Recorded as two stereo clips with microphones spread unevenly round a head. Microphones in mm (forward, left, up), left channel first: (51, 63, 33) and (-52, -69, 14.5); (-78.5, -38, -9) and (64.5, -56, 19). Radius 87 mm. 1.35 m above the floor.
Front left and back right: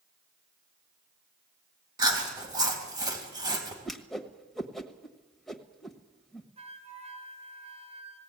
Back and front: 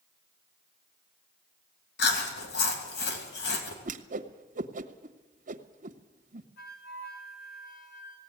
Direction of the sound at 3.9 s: 35° right.